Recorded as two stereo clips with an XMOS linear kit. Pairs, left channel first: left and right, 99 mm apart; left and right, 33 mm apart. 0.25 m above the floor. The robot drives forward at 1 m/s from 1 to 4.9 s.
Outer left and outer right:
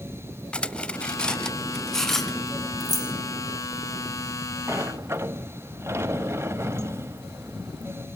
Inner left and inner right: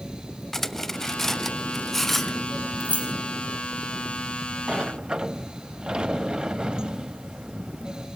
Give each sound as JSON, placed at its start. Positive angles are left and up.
{"t": 0.5, "sound": "cutlery clinking", "side_deg": 10, "distance_m": 0.6}
{"t": 2.8, "sound": "keys jangling", "side_deg": -40, "distance_m": 1.2}
{"t": 4.7, "sound": "a sliding door", "side_deg": -25, "distance_m": 0.6}